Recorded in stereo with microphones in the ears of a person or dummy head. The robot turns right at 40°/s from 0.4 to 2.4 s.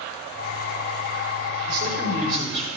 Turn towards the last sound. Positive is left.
turn(degrees=-40)  # may be behind; listen again after turning